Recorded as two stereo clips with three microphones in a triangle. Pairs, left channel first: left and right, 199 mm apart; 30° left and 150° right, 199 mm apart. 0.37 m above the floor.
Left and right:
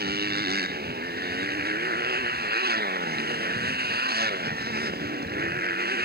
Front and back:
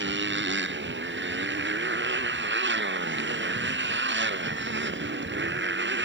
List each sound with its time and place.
0.0 s a motorcycle: 125° right